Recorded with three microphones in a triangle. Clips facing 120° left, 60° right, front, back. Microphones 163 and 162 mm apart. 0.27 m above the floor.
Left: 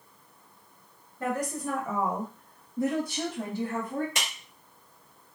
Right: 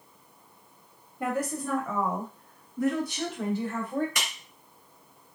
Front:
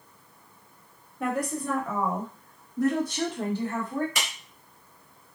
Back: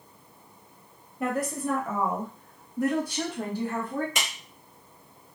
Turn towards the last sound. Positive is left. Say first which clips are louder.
# even, back 1 dB
turn(degrees=150)